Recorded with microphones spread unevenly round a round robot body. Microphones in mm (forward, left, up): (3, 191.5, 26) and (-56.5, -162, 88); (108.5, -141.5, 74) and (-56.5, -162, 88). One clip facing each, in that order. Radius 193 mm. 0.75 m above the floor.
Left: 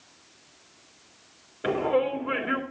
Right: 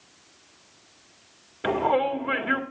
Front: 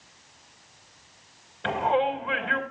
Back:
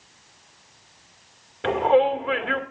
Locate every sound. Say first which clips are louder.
1.6 s a shout: even, back 6 dB; 170° right, 2.5 m